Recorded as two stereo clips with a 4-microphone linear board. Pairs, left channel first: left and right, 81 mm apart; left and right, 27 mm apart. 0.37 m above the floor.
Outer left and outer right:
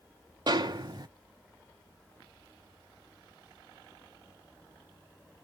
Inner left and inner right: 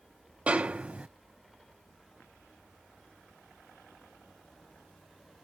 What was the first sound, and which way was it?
A snare drum, 55° right (ahead or behind).